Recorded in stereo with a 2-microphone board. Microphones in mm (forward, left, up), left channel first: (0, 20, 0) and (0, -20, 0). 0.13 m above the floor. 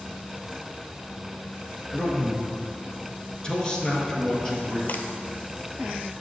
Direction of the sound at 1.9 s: 15° left (ahead or behind).